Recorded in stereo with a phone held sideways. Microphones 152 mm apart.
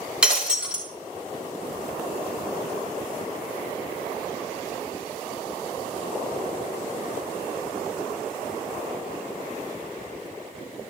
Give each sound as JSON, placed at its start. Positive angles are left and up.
{"t": 0.2, "sound": "breaking glass", "side_deg": -5, "distance_m": 3.5}